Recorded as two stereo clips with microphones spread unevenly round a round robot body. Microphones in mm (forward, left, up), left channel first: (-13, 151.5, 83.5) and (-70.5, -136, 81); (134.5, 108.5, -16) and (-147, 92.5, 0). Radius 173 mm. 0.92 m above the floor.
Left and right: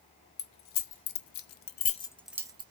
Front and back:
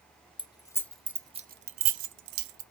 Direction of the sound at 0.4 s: 80° left.